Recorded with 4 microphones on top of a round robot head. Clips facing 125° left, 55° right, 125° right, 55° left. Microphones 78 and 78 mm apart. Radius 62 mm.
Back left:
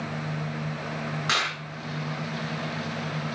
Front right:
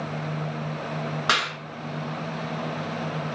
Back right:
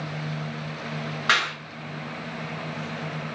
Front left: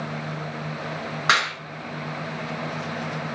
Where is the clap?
20° right, 7.5 m.